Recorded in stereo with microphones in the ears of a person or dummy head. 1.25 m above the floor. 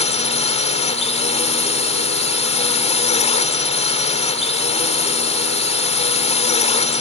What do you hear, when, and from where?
0.0 s a drone: 30° left (ahead or behind)